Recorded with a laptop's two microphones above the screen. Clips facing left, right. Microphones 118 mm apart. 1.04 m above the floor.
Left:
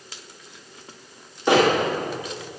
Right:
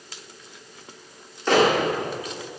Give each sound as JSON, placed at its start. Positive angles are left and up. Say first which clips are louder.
{"t": 1.5, "sound": "a bird", "louder": "left 2 dB", "side_deg": 15, "distance_m": 1.6}